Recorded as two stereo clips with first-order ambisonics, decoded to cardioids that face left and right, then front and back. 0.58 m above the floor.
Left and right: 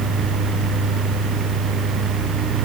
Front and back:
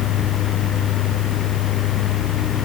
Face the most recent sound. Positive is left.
No sound to turn to.